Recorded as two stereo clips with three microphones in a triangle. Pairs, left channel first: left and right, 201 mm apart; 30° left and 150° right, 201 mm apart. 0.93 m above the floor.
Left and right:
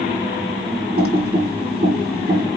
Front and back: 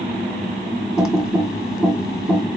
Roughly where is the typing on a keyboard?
Ahead right.